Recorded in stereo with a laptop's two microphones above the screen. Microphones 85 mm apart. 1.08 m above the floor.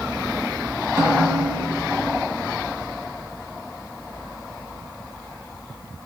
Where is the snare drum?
35° right (ahead or behind), 1.5 m.